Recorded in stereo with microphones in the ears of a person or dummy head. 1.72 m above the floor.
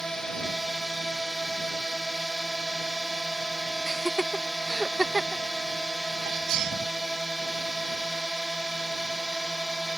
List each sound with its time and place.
0.0 s a drone: 5° left (ahead or behind)
3.9 s laughter: centre (ahead or behind)
6.2 s a sneeze: 55° right (ahead or behind)